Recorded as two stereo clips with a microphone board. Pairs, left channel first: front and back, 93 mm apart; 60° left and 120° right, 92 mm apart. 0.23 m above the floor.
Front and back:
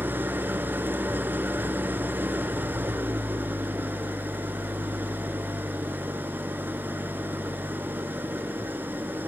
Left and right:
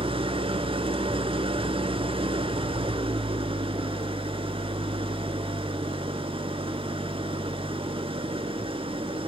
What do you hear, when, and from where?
0.0 s an engine running: 110° right, 0.8 m